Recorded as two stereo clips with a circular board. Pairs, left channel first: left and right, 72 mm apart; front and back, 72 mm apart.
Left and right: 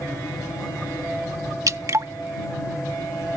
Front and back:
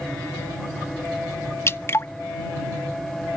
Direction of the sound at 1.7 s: 50° right.